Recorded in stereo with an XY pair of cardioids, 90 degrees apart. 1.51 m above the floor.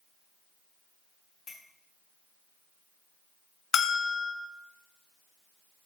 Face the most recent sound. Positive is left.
turn(degrees=60)